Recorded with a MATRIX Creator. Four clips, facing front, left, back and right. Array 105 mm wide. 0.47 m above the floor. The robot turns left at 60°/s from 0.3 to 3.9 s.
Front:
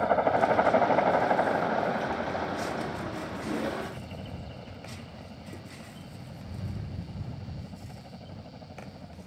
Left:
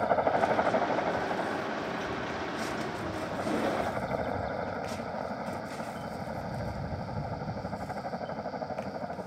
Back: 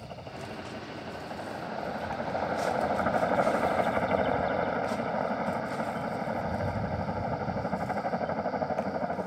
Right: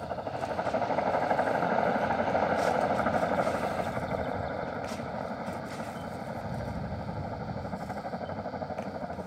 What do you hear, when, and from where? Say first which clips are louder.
0.0 s a helicopter: left 8 dB, front 18 dB; 30° left; by 9.3 s 175° left